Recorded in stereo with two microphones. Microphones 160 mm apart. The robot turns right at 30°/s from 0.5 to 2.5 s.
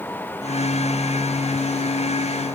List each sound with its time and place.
Only background noise.